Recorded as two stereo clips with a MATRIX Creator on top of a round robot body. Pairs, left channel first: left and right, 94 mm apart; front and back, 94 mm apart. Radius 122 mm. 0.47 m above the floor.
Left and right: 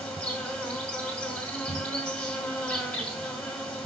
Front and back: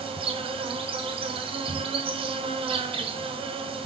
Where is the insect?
170° left, 1.6 m.